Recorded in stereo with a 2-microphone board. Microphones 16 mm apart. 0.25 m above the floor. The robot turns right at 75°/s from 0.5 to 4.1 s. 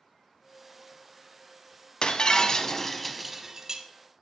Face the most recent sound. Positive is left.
turn(degrees=-105)